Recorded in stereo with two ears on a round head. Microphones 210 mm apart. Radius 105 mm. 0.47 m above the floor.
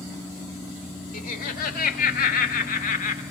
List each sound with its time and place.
1.1 s laughter: 40° left (ahead or behind), 2 m; by 3.2 s 35° left (ahead or behind), 1.5 m